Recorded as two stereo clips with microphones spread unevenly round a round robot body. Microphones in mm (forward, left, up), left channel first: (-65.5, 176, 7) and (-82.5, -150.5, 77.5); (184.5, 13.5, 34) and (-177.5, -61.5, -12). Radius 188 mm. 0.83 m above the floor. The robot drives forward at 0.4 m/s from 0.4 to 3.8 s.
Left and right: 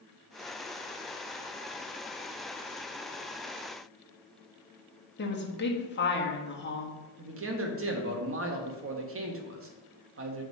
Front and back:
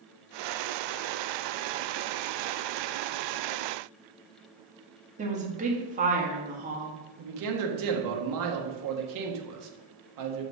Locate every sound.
5.2 s a woman speaking: 130° left, 1.7 m
7.2 s a man speaking: 145° right, 1.4 m